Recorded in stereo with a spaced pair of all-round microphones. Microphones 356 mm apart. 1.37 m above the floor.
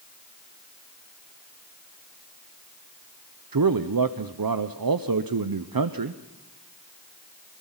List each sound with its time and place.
3.5 s a man speaking: 65° right (ahead or behind), 0.6 m